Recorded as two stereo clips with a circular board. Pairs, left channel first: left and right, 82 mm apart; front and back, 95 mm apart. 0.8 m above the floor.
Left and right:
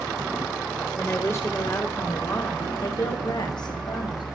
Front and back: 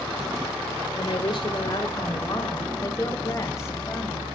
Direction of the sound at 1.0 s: 25° left.